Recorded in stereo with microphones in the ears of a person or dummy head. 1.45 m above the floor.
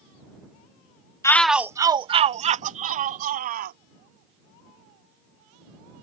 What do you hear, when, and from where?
1.2 s a shout: 20° left (ahead or behind); by 3.8 s 45° right (ahead or behind)